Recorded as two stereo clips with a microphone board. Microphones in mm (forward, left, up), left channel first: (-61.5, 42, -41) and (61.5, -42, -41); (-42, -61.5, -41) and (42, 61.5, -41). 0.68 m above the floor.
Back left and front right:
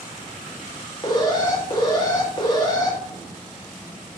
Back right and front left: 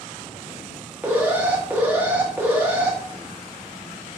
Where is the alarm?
125° left, 1.5 m.